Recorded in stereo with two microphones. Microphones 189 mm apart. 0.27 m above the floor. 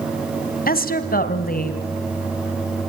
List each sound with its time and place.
0.7 s a woman speaking: 50° left (ahead or behind), 1.9 m